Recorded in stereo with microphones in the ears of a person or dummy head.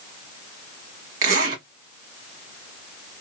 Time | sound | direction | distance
1.2 | a zipper | 45° right (ahead or behind) | 1.3 m